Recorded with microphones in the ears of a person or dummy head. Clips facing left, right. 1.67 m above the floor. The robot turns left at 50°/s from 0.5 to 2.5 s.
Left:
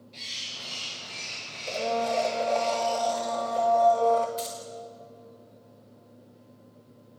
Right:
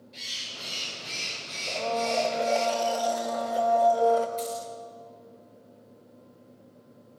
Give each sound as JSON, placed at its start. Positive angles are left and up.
{"t": 0.1, "sound": "a bird", "azimuth_deg": -10, "distance_m": 4.0}
{"t": 1.7, "sound": "a blender", "azimuth_deg": 30, "distance_m": 1.9}
{"t": 4.4, "sound": "keys jangling", "side_deg": 10, "distance_m": 4.5}